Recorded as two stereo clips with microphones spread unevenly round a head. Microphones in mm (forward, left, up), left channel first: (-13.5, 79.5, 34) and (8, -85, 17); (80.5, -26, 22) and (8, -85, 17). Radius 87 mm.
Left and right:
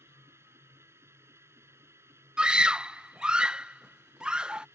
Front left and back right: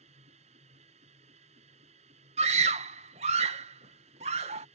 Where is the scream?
170° right.